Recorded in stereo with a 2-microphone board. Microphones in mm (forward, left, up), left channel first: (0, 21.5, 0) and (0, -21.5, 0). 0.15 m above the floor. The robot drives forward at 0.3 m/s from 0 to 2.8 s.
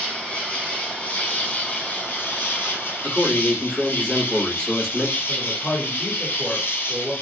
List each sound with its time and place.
0.0 s an insect: 30° left (ahead or behind), 1.4 m; by 7.2 s 60° left (ahead or behind), 0.8 m
3.0 s a man speaking: 20° left (ahead or behind), 1.6 m
5.3 s a man speaking: 10° right (ahead or behind), 1.7 m